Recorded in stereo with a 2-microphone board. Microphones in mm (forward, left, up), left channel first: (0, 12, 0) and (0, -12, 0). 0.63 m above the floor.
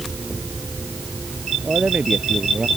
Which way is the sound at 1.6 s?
55° right (ahead or behind).